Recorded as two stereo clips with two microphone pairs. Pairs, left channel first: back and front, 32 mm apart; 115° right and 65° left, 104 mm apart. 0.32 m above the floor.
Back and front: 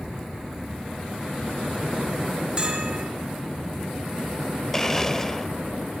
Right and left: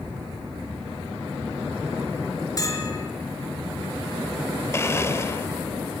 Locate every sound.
2.6 s a bell: 60° right, 3.5 m
4.7 s a blender: 125° right, 1.0 m